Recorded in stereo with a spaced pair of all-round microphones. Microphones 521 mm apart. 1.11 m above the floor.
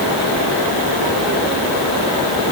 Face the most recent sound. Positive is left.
No sound to turn to.